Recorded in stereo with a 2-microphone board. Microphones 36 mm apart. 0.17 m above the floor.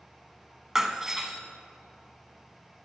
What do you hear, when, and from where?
0.8 s breaking glass: 15° right (ahead or behind), 0.8 m